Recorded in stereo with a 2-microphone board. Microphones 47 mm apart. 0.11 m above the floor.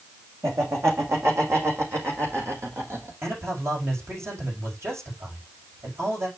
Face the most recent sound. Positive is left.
turn(degrees=-75)  # may be behind; listen again after turning